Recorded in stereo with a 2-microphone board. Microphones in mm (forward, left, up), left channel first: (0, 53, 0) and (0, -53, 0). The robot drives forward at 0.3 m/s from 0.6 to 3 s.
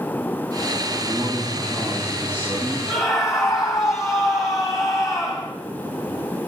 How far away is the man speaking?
About 8 m.